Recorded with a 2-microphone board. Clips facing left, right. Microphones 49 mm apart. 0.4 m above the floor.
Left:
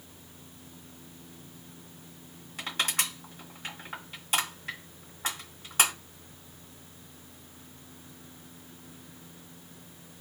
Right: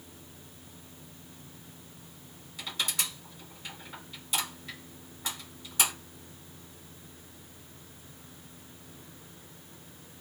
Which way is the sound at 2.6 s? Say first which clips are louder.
Left 3 dB; 55° left (ahead or behind).